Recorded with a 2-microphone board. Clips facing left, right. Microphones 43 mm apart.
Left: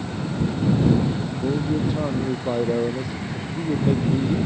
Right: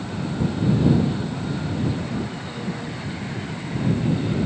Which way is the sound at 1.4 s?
80° left.